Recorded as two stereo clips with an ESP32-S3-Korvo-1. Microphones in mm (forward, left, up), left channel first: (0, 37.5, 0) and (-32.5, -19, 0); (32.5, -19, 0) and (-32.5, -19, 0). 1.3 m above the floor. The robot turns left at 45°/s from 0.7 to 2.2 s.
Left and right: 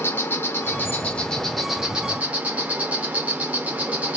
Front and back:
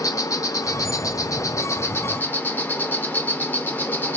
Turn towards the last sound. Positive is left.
turn(degrees=-55)